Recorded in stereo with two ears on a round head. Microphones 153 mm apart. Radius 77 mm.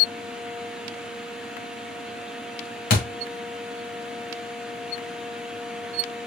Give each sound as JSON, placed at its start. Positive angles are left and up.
{"t": 2.9, "sound": "a thud", "side_deg": 50, "distance_m": 1.3}